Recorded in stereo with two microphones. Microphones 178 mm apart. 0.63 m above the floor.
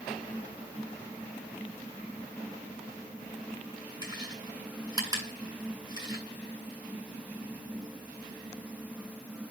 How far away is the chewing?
About 7 m.